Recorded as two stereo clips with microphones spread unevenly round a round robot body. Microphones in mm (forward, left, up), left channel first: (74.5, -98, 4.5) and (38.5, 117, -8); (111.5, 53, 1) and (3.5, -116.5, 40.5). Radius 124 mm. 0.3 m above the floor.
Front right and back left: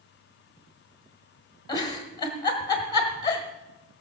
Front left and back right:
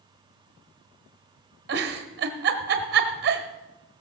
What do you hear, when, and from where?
1.7 s a giggle: 150° right, 1.3 m